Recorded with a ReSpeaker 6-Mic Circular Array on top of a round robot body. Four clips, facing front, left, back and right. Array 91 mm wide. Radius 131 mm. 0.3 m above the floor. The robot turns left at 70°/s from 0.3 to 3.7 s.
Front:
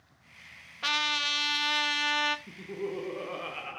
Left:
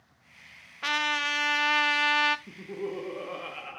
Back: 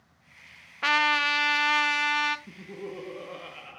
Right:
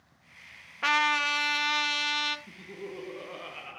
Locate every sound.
0.8 s a trumpet: 155° right, 1.4 m; by 2.4 s 95° left, 1.4 m
2.5 s laughter: 100° left, 1.5 m; by 3.8 s 15° left, 1.5 m